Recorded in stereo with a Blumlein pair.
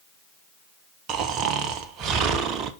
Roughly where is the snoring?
Ahead right.